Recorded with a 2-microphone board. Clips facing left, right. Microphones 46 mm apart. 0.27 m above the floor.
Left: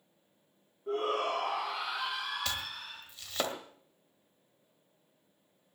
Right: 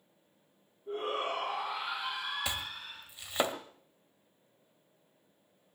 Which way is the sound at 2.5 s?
15° right (ahead or behind).